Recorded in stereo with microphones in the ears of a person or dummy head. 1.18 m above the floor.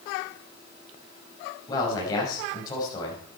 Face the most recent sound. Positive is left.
turn(degrees=25)  # may be behind; listen again after turning